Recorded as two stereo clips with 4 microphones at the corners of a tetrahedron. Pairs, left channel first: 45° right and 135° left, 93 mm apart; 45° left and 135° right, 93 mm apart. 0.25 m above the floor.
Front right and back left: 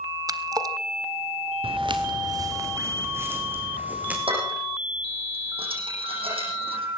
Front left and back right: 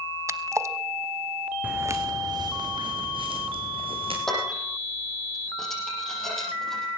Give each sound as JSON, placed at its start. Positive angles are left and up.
{"t": 0.3, "sound": "a splash", "azimuth_deg": 170, "distance_m": 0.8}
{"t": 1.6, "sound": "footsteps", "azimuth_deg": 150, "distance_m": 1.5}
{"t": 4.3, "sound": "dishes clattering", "azimuth_deg": 130, "distance_m": 6.5}